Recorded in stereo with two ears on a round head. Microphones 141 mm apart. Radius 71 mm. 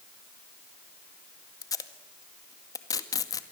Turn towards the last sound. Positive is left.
turn(degrees=25)  # may be behind; listen again after turning